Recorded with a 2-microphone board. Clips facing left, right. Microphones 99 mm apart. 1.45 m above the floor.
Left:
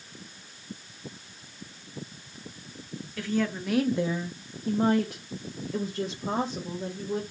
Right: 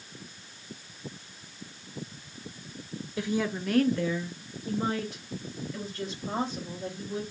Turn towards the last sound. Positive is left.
turn(degrees=80)